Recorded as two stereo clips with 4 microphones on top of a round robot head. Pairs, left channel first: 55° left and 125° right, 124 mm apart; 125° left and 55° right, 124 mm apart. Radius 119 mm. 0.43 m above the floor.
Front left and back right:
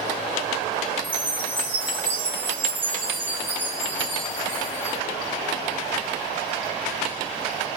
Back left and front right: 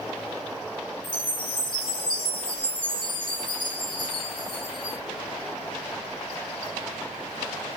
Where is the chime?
170° left, 1.8 m.